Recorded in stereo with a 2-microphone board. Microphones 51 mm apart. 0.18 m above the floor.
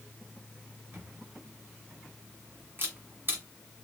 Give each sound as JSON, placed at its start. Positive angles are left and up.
{"t": 0.9, "sound": "a camera shutter", "side_deg": -45, "distance_m": 1.4}